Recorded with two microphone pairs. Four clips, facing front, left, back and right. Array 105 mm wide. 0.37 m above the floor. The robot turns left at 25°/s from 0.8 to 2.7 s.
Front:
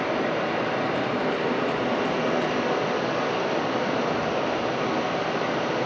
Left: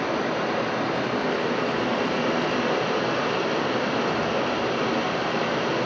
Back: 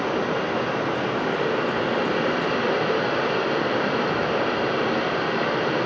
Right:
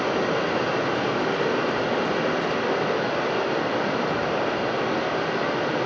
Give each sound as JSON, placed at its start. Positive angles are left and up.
{"t": 0.0, "sound": "running water", "azimuth_deg": -130, "distance_m": 1.1}